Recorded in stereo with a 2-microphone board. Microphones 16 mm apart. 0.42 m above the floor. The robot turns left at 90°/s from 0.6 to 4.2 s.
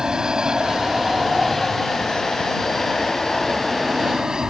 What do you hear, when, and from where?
0.0 s an aircraft: 45° right (ahead or behind); by 4.5 s 35° right (ahead or behind)